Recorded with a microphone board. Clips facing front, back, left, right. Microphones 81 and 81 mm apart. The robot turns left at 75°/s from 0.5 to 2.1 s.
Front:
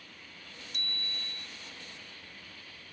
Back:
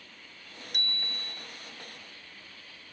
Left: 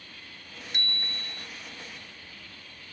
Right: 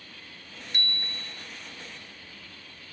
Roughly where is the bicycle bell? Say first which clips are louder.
Back 4 dB, right 1 dB; behind.